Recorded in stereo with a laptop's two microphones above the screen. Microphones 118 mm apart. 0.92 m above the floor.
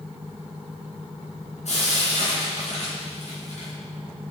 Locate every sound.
1.6 s frying: 75° left (ahead or behind), 3.5 m